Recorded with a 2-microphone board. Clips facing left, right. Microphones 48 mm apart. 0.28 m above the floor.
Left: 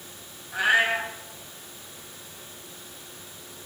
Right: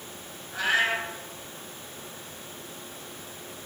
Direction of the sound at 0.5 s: 20° left (ahead or behind).